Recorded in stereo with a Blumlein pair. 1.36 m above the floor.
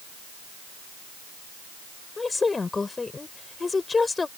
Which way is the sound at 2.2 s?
10° left.